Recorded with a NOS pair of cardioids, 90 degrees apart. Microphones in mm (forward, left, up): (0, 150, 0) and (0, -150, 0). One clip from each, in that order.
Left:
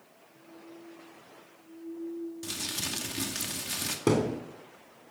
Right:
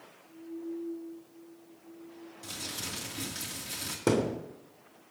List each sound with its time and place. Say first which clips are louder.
2.4 s crumpling: left 2 dB; 45° left, 2.5 m
4.1 s a thud: left 1 dB; 5° left, 3 m